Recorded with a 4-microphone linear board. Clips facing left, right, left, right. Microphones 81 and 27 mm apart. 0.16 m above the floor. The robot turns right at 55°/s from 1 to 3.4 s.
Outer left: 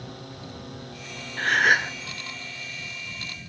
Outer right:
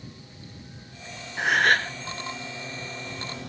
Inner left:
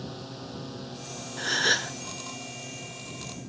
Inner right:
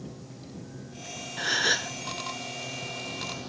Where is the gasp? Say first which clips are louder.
Even, inner left 1 dB; 10° right; by 1.9 s 20° left.